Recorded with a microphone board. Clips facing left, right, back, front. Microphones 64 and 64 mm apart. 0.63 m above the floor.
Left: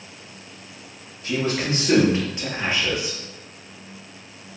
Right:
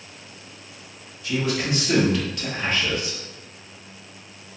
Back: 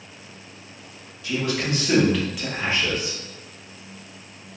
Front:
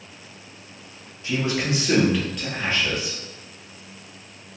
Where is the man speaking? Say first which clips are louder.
Left 1 dB, front 1 dB; 50° left, 1.0 m; by 3.2 s straight behind, 0.8 m.